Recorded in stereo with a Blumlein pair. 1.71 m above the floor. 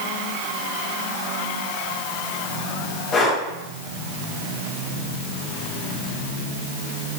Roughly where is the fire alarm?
No fire alarm in this recording.